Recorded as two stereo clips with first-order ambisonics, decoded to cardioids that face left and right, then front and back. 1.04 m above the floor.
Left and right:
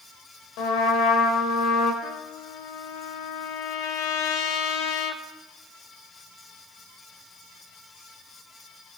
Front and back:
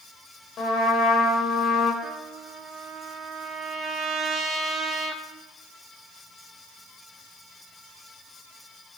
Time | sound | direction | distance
0.6 | a trumpet | 60° left | 1.8 m
2.0 | a trumpet | 110° left | 0.9 m